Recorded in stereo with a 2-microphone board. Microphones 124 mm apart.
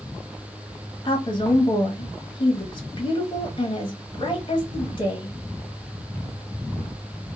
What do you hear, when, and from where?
1.1 s a woman speaking: 40° left (ahead or behind), 1.0 m